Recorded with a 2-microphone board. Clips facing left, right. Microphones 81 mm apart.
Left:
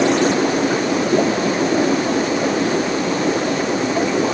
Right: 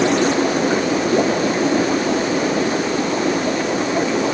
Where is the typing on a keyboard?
No typing on a keyboard in this recording.